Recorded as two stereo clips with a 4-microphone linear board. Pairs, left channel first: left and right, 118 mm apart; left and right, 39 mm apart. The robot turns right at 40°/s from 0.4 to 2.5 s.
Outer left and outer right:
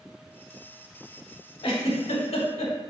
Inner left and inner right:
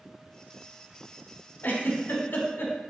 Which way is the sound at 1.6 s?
55° left (ahead or behind).